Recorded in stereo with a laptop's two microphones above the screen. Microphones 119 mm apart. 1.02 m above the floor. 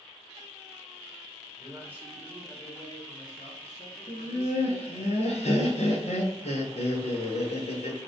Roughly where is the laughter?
Left.